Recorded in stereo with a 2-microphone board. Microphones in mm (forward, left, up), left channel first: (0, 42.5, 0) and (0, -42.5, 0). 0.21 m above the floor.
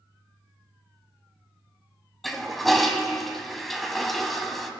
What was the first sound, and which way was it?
A toilet flushing, centre (ahead or behind).